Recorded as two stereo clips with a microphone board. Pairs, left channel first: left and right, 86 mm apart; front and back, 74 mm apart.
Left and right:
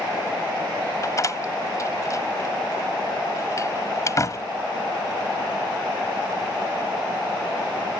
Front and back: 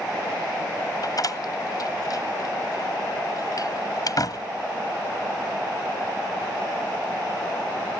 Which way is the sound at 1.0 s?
35° left.